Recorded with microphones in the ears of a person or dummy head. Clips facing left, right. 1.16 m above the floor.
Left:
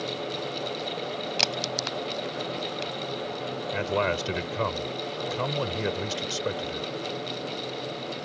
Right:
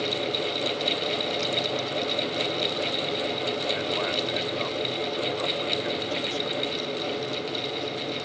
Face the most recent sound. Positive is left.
turn(degrees=60)  # may be behind; listen again after turning